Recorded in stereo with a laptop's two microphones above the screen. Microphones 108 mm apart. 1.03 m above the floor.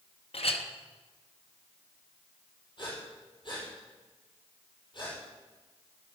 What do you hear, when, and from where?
0.3 s a clink: 65° left (ahead or behind), 1.0 m
2.8 s breathing: 50° left (ahead or behind), 5.5 m